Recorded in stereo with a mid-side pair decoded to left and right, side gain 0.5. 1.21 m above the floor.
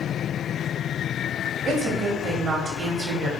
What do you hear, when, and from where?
1.6 s a woman speaking: 60° right, 1.2 m